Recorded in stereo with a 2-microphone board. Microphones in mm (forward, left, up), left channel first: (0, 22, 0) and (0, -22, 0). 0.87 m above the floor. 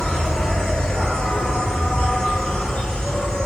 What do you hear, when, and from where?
0.0 s an insect: 25° left (ahead or behind), 3 m